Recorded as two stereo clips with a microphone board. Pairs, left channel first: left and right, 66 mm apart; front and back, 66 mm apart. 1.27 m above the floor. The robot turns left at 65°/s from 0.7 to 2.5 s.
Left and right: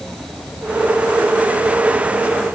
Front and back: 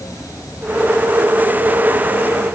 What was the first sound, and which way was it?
Only background noise.